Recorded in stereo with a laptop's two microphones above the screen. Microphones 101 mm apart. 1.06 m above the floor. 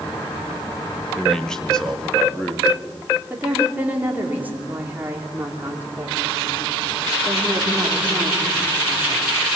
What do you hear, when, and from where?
1.1 s a man speaking: 5° left (ahead or behind), 1.4 m; by 2.7 s 10° left (ahead or behind), 2 m
3.3 s a woman speaking: 15° right (ahead or behind), 3 m